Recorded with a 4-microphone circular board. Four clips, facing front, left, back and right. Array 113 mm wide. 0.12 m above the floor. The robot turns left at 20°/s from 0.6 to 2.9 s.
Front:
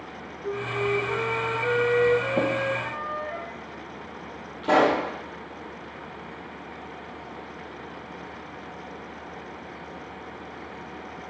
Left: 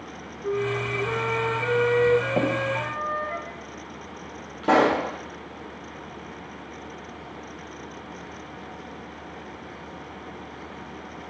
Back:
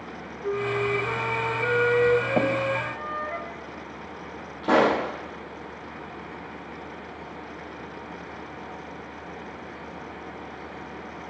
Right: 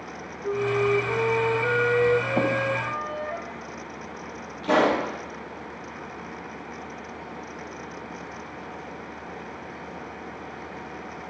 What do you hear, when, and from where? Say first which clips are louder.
0.4 s a flute: right 3 dB, back 2 dB; 150° left, 6 m; by 3.4 s 105° left, 6 m
2.4 s tapping: even, back 1 dB; 150° left, 4.5 m; by 2.5 s 145° left, 4.5 m
4.6 s a pop: left 2 dB, even; 100° left, 5 m